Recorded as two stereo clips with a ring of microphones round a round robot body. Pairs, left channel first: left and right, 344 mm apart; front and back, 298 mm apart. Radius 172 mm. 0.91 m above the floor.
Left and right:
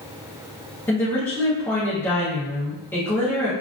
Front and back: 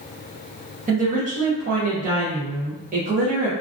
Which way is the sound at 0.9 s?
165° left.